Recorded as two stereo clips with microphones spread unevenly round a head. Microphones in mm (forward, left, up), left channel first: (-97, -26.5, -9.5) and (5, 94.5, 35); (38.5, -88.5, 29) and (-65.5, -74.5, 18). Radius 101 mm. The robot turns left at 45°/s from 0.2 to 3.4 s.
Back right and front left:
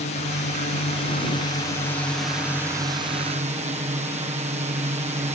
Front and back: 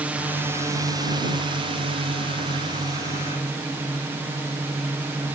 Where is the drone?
115° right; by 5.3 s 100° left.